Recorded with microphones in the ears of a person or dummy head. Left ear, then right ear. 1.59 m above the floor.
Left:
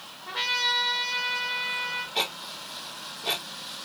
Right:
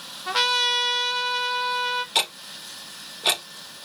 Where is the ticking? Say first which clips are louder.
Right 4 dB; 60° right (ahead or behind), 0.6 m.